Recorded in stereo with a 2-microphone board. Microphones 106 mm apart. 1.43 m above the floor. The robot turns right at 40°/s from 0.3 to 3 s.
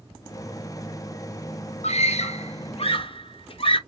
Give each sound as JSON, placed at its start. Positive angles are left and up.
{"t": 1.8, "sound": "a scream", "side_deg": 80, "distance_m": 1.0}